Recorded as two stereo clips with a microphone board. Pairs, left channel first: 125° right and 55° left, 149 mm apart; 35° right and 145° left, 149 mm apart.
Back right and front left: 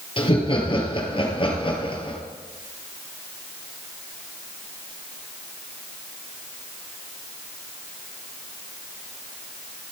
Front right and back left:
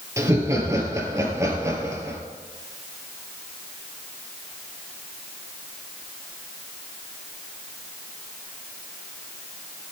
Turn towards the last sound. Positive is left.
turn(degrees=-155)